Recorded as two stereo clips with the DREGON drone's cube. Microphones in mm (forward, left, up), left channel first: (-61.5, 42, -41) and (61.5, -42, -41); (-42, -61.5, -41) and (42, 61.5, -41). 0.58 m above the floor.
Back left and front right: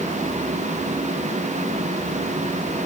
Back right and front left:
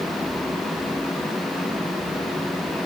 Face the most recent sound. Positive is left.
No sound to turn to.